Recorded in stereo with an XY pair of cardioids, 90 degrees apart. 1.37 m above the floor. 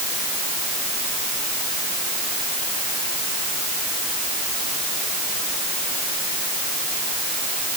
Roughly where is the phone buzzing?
No phone buzzing in this recording.